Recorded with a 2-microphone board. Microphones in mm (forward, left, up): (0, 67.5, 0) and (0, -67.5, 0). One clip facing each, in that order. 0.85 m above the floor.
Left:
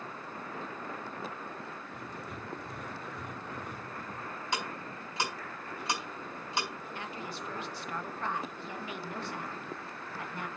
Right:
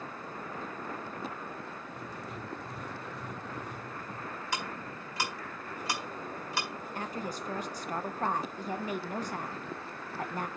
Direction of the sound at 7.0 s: 40° right (ahead or behind).